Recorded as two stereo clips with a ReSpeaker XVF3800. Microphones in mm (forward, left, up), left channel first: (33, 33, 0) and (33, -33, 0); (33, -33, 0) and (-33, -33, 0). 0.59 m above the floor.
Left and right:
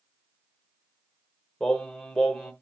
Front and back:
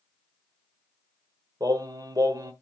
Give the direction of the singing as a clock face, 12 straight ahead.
6 o'clock.